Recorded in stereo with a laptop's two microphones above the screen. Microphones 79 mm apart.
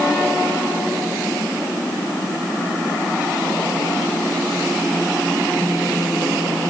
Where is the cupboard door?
I don't hear a cupboard door.